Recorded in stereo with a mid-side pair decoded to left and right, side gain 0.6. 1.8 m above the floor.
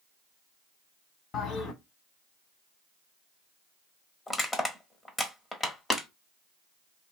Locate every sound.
1.3 s a toilet flushing: 45° left, 1.5 m
4.3 s crushing: 15° left, 1.1 m
5.9 s tapping: 35° left, 1.2 m